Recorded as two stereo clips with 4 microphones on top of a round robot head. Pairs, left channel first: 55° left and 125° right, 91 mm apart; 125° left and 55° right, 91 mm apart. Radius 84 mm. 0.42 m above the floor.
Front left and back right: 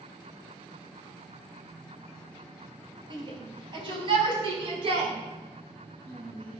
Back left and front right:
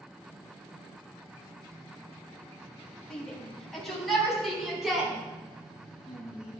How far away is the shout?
About 2.5 m.